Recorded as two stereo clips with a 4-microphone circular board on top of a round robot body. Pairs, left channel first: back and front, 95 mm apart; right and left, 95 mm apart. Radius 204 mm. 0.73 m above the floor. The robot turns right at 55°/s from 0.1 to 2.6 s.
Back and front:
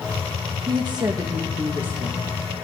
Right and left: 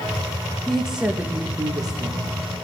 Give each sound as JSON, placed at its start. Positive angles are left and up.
{"t": 0.7, "sound": "a woman speaking", "azimuth_deg": -5, "distance_m": 0.9}